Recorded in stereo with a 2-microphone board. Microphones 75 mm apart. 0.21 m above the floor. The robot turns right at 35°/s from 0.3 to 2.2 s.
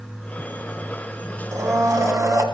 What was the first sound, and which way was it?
A blender, 40° right (ahead or behind).